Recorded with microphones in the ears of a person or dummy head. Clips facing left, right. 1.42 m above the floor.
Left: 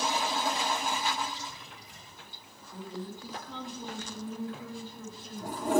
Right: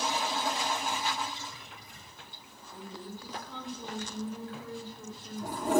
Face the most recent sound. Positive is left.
turn(degrees=20)  # may be behind; listen again after turning